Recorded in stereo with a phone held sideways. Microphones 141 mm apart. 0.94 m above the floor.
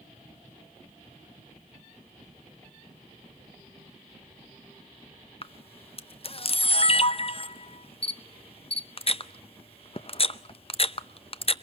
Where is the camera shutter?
40° left (ahead or behind), 0.6 m.